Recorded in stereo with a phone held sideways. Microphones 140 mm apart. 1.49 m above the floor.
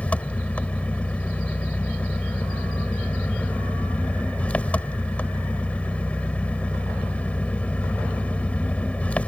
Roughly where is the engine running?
Centre.